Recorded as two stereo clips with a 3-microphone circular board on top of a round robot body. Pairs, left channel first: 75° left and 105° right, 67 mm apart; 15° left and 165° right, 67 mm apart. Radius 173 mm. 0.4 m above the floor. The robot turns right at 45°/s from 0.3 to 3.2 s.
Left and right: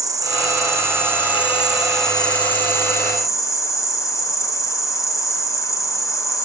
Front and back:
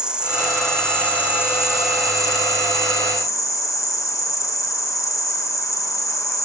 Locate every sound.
0.0 s an insect: 85° right, 3.5 m; by 6.5 s 45° left, 3.5 m